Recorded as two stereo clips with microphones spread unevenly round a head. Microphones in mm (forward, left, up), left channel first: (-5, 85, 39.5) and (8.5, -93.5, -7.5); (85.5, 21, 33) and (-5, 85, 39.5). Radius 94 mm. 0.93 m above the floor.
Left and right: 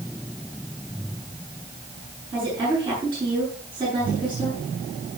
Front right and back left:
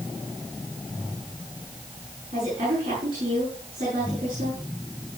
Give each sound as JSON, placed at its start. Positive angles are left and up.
{"t": 2.3, "sound": "a woman speaking", "azimuth_deg": -155, "distance_m": 9.5}